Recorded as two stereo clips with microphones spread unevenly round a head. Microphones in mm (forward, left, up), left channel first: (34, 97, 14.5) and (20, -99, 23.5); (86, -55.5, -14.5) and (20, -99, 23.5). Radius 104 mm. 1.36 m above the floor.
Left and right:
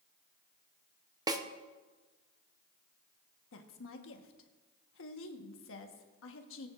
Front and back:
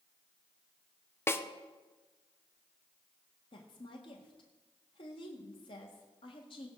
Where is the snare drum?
20° right, 0.8 m.